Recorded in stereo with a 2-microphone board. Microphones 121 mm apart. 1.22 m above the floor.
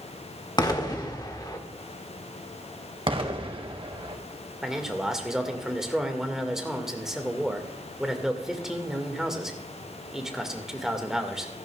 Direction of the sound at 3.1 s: 45° right (ahead or behind).